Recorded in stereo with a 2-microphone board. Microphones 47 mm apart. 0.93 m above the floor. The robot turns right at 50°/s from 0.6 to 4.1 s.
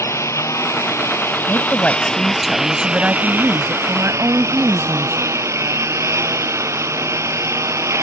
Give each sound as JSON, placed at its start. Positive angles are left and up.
{"t": 0.0, "sound": "a lawn mower", "azimuth_deg": 85}
{"t": 1.5, "sound": "a woman speaking", "azimuth_deg": 135}